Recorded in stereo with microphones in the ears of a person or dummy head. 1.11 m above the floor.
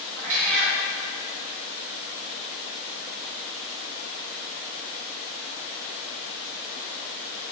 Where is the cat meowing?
85° right, 4.5 m.